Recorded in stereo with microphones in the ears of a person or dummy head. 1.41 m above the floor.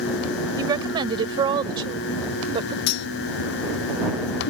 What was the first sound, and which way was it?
A woman speaking, 25° right (ahead or behind).